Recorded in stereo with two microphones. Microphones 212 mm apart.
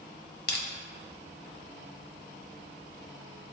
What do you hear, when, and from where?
0.5 s crushing: 55° left (ahead or behind), 1.3 m